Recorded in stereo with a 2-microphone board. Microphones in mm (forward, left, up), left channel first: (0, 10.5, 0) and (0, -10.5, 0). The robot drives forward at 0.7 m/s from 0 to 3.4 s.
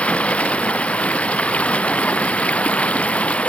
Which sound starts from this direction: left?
Running water, at 0.0 s.